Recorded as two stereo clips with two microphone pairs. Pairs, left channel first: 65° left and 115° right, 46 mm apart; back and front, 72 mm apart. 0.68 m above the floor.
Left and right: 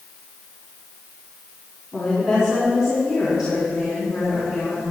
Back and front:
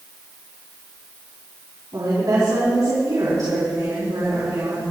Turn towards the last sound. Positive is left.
turn(degrees=-35)